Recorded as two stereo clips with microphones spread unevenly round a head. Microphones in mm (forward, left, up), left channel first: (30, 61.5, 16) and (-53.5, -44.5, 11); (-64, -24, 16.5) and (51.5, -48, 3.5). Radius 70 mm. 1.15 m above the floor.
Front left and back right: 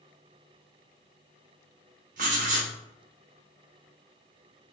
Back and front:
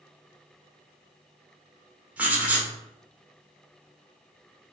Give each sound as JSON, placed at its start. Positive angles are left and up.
{"t": 2.2, "sound": "writing", "azimuth_deg": -90, "distance_m": 1.4}